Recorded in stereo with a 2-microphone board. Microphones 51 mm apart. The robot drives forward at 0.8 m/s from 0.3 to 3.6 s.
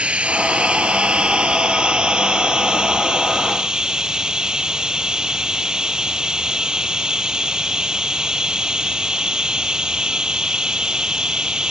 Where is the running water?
20° right (ahead or behind); by 11.7 s 15° right (ahead or behind).